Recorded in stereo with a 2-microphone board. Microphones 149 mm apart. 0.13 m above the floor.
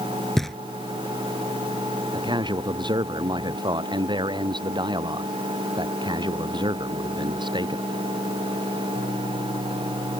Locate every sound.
0.4 s knocking: centre (ahead or behind)
2.1 s a man speaking: 30° right (ahead or behind)